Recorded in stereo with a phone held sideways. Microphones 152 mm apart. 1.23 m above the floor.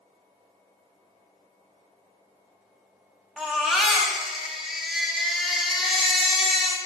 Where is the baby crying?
Centre (ahead or behind), 1.5 m.